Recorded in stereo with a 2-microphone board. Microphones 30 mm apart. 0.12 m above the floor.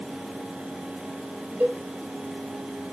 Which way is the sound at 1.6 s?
70° right (ahead or behind).